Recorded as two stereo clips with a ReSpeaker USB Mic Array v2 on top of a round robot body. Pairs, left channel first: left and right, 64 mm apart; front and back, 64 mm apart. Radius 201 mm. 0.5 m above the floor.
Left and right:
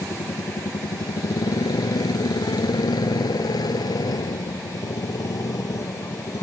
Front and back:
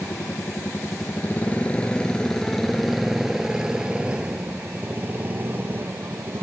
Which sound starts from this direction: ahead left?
A motorcycle, at 0.0 s.